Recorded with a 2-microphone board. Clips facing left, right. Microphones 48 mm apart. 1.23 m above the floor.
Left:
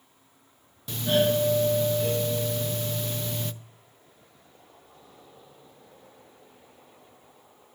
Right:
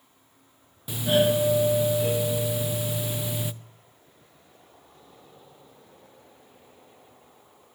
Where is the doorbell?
10° right (ahead or behind), 0.5 m.